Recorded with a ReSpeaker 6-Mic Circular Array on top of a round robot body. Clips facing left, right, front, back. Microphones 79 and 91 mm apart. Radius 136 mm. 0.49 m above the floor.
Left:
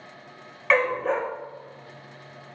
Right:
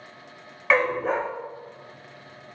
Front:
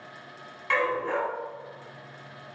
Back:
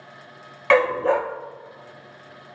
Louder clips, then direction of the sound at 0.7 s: Even, back 8 dB; 175° right.